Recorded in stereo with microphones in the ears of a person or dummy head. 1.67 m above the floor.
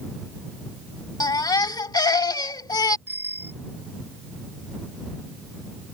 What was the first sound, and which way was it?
A baby crying, 25° left (ahead or behind).